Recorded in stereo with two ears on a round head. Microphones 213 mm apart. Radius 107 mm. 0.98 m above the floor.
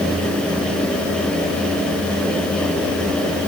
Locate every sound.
Only background noise.